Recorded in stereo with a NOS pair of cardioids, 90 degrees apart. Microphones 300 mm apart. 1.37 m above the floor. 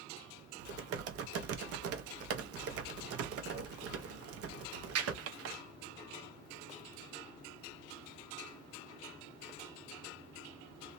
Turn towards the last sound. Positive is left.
turn(degrees=-55)